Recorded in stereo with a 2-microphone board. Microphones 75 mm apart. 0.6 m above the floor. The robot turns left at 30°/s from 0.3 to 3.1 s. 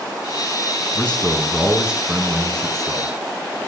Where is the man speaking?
20° left, 5 m; by 3.1 s 45° right, 5 m.